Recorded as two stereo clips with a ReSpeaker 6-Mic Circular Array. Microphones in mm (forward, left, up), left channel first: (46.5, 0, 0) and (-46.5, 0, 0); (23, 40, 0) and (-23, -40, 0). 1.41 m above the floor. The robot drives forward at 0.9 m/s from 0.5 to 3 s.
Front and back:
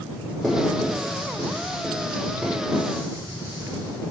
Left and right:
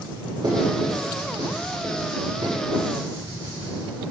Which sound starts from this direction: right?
Writing, at 0.4 s.